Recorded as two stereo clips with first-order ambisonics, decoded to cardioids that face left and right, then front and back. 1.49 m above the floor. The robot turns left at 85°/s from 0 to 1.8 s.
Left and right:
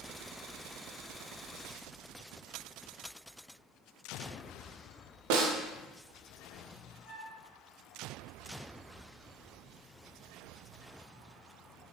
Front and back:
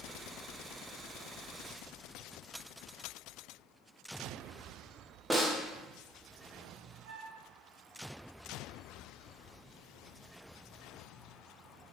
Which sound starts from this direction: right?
A snare drum, at 5.3 s.